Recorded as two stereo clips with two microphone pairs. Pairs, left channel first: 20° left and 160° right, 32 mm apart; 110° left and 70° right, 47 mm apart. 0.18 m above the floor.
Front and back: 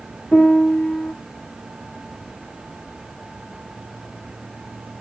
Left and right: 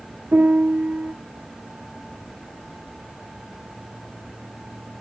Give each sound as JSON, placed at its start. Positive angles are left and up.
{"t": 0.3, "sound": "a piano", "azimuth_deg": -20, "distance_m": 0.5}